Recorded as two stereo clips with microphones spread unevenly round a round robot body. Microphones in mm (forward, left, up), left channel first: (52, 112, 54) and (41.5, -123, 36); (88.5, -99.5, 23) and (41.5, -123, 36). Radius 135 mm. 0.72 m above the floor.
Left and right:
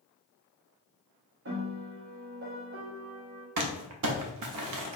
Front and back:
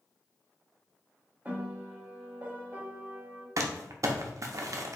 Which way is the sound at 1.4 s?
90° right.